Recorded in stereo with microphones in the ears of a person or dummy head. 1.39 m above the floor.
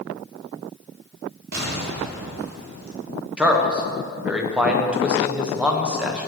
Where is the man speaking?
10° right (ahead or behind), 1.2 m.